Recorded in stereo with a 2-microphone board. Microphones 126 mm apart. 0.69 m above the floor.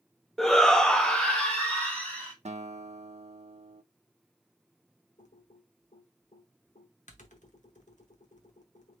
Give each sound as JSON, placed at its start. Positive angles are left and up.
{"t": 0.4, "sound": "a shout", "side_deg": 5, "distance_m": 0.6}
{"t": 2.5, "sound": "a guitar", "side_deg": -60, "distance_m": 0.7}
{"t": 5.2, "sound": "typing on a keyboard", "side_deg": 75, "distance_m": 1.1}